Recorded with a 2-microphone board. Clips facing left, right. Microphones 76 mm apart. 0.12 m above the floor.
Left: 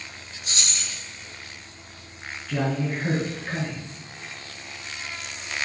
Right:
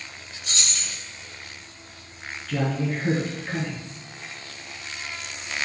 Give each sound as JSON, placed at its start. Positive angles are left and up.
{"t": 0.4, "sound": "keys jangling", "side_deg": 20, "distance_m": 1.9}
{"t": 2.5, "sound": "a man speaking", "side_deg": 10, "distance_m": 1.2}